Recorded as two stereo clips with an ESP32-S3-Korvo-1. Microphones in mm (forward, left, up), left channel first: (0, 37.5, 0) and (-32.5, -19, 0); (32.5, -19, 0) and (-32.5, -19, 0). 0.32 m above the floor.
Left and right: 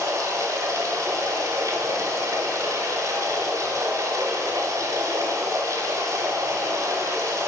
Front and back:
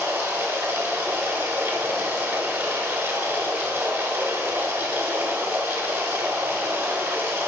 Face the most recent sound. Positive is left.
turn(degrees=-125)